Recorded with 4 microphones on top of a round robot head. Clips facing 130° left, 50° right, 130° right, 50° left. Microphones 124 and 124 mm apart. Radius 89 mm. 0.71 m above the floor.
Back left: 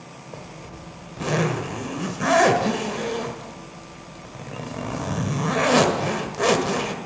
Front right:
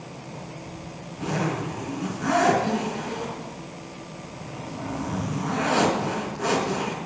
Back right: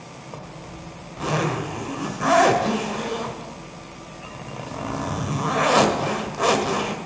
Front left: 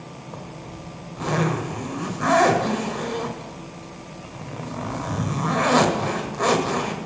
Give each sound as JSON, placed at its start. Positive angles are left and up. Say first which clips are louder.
{"t": 0.3, "sound": "a zipper", "louder": "back left 2 dB, even", "azimuth_deg": 145, "distance_m": 1.4}